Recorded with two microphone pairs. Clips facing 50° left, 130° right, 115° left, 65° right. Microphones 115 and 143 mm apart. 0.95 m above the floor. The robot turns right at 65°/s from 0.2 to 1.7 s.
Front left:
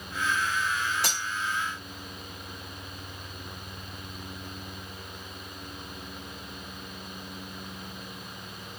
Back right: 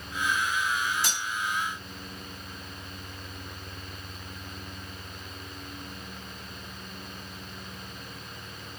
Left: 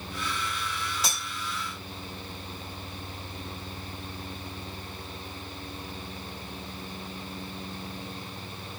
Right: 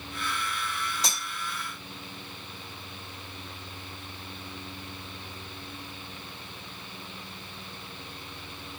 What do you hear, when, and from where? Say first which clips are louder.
1.0 s cutlery clinking: front left 1 dB, left 1 dB; 25° left, 1.0 m; by 1.2 s 40° left, 1.0 m